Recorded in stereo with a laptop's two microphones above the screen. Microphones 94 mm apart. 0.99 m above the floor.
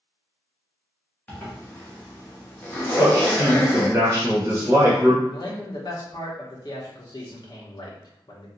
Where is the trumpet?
No trumpet in this recording.